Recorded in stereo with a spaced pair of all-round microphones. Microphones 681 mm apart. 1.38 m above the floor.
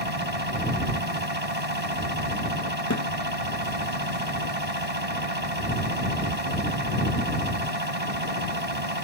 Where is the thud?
25° left (ahead or behind).